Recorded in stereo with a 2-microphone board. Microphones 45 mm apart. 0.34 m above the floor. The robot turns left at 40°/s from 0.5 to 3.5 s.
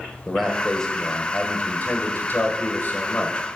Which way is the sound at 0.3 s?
170° left.